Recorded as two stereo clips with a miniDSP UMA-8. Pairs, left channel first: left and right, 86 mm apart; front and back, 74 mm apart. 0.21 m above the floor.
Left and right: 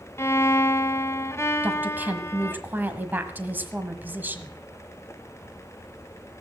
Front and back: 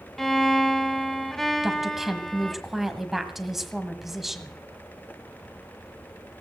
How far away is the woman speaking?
About 1.3 m.